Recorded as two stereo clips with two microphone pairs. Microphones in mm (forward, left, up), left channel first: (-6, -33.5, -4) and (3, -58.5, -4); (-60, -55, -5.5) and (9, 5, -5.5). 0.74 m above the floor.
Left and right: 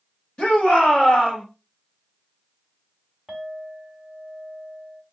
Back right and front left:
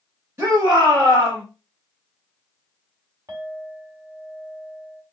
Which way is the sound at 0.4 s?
90° left.